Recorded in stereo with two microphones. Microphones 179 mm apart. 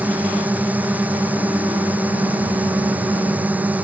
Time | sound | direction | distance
0.0 | a drone | 10° right (ahead or behind) | ?